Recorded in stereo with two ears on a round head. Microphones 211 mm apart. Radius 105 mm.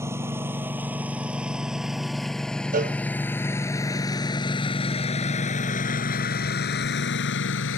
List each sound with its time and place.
0.0 s a lawn mower: 10° right (ahead or behind); by 7.8 s 60° left (ahead or behind)
2.7 s a cowbell: 35° right (ahead or behind)